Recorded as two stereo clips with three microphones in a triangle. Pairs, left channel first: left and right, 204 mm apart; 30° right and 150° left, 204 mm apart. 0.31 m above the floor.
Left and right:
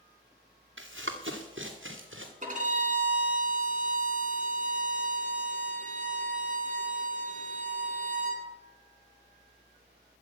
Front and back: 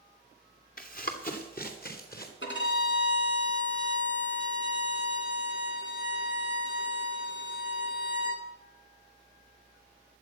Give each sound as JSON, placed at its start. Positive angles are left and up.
{"t": 0.8, "sound": "running footsteps", "azimuth_deg": -75, "distance_m": 2.0}
{"t": 2.4, "sound": "a violin", "azimuth_deg": -40, "distance_m": 2.5}